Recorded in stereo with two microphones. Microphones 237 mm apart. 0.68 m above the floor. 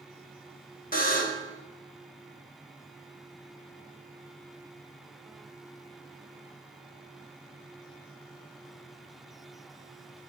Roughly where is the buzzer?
Left.